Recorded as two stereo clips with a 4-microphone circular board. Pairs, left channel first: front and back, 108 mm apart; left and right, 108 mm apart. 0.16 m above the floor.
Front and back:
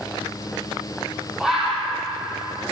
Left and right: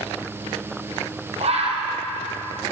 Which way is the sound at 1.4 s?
95° right.